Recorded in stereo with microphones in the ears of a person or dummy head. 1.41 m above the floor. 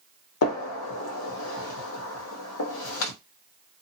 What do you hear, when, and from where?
0.4 s a gunshot: 75° left (ahead or behind), 1.0 m